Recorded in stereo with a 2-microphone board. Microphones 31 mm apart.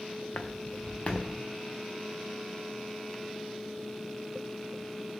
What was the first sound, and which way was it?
Footsteps, 65° left (ahead or behind).